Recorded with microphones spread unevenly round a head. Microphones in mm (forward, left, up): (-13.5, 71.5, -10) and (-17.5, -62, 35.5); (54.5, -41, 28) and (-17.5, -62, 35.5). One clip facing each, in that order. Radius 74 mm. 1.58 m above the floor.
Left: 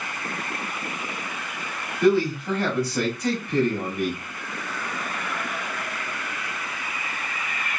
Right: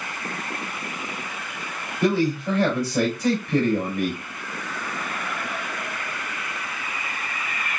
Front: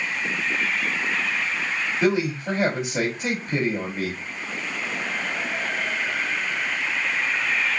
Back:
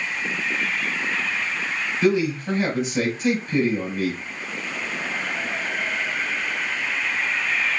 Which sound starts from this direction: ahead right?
A man speaking, at 2.0 s.